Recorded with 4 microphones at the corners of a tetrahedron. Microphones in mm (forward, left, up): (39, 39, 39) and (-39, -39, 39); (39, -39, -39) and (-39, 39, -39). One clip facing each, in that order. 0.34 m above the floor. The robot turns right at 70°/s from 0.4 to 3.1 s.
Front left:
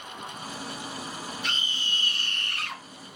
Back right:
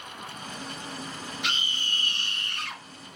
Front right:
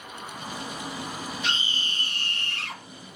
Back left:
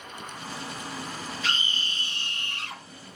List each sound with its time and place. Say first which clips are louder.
1.4 s a scream: back right 1 dB, back left 2 dB; 120° right, 6.5 m; by 2.8 s 20° right, 6.5 m